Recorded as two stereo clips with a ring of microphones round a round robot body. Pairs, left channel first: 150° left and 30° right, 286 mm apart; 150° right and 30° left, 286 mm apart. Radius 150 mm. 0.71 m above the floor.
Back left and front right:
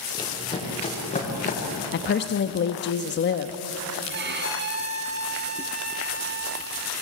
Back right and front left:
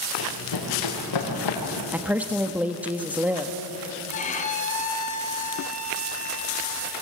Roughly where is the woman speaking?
Behind left.